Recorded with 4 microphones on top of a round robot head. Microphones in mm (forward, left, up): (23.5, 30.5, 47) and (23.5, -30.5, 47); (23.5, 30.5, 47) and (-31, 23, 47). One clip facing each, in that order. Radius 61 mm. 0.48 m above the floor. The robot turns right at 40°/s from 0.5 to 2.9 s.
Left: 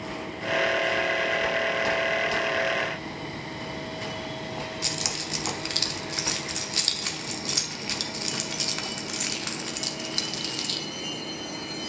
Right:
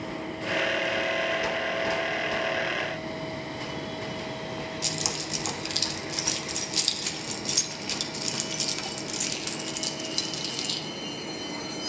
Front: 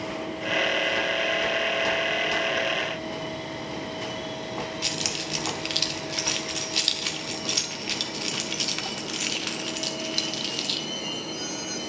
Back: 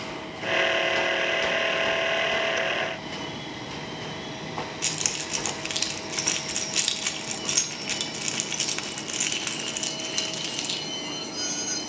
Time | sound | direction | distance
4.8 | keys jangling | 115° left | 0.9 m